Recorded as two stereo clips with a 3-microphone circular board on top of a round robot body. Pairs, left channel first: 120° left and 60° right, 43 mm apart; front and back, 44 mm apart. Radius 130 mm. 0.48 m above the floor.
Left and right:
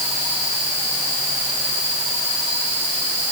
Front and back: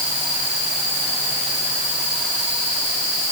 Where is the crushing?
I don't hear crushing.